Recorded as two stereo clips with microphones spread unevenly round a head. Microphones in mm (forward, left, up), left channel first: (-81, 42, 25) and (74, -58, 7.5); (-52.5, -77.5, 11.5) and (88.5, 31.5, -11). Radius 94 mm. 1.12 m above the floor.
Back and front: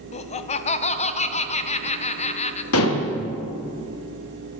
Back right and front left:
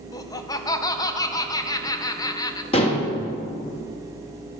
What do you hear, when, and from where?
0.1 s laughter: 150° left, 0.6 m
2.7 s dishes clattering: 155° left, 1.2 m